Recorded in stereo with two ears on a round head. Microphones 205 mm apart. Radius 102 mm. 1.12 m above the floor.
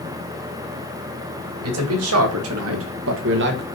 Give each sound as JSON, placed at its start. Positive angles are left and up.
{"t": 1.6, "sound": "a man speaking", "side_deg": -75, "distance_m": 2.5}